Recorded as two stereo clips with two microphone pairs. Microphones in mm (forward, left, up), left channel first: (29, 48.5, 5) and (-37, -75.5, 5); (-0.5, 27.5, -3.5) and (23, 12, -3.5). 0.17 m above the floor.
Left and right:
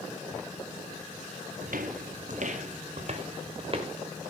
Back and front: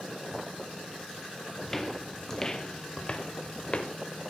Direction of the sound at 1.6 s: 130° right.